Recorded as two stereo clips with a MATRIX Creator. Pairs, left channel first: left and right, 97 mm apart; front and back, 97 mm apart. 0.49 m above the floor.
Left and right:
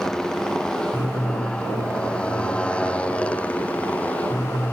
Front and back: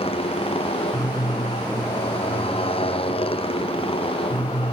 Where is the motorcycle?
5° left; by 4.7 s 15° left.